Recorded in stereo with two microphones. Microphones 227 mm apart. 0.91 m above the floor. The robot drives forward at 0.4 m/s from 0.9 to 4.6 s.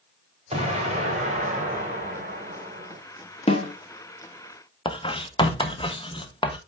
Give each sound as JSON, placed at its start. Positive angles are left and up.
{"t": 0.5, "sound": "an explosion", "side_deg": -30, "distance_m": 3.5}
{"t": 3.5, "sound": "a snare drum", "side_deg": 25, "distance_m": 1.4}
{"t": 4.8, "sound": "writing", "side_deg": 20, "distance_m": 1.1}